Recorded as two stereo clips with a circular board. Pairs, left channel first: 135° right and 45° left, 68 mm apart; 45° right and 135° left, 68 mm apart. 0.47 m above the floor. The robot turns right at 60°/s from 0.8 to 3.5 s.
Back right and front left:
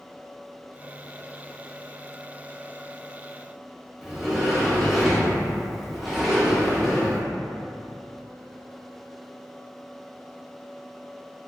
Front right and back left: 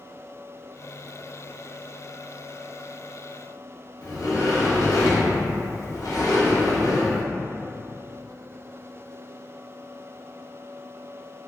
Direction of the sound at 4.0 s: 40° right.